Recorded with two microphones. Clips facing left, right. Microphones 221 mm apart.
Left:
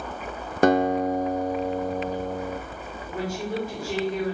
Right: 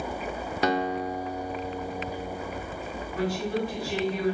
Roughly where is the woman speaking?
Left.